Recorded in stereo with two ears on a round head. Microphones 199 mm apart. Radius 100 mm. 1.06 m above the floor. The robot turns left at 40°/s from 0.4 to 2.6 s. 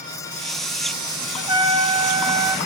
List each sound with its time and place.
1.4 s a trumpet: 20° right (ahead or behind), 0.8 m; by 2.6 s 15° right (ahead or behind), 0.8 m